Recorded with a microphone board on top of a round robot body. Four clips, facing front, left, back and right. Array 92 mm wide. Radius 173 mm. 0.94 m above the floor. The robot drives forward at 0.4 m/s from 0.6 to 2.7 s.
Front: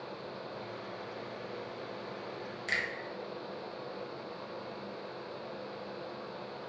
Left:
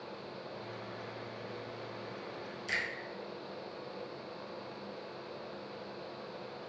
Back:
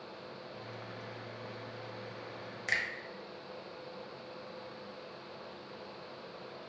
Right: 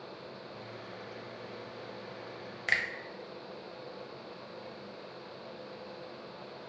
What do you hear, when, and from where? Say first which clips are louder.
2.7 s a finger snap: right 6 dB, even; 105° right, 0.6 m